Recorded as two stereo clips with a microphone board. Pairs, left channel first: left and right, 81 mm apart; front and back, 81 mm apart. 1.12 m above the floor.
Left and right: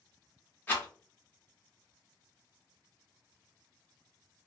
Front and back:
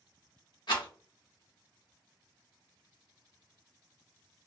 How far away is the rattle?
About 1.2 m.